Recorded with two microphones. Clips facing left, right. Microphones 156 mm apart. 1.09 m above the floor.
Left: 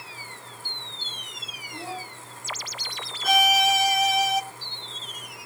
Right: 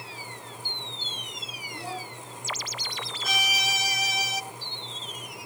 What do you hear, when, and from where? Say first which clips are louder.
1.7 s a child speaking: left 1 dB; 20° left (ahead or behind), 7 m
3.2 s a violin: left 12 dB; 55° left (ahead or behind), 0.7 m